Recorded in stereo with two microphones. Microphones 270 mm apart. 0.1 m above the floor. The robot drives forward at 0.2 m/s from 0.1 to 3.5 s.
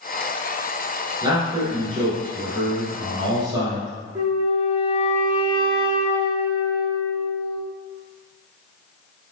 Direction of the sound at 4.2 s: 10° right (ahead or behind).